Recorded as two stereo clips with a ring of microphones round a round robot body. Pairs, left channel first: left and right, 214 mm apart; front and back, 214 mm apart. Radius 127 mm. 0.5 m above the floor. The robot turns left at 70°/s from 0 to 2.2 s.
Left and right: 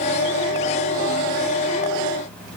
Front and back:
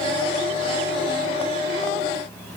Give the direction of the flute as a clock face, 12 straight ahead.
I don't hear a flute.